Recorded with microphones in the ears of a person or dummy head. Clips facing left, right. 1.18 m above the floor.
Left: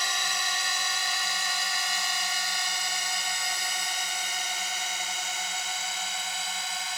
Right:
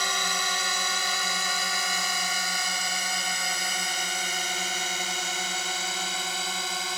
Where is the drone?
80° right; by 7.0 s 70° right (ahead or behind).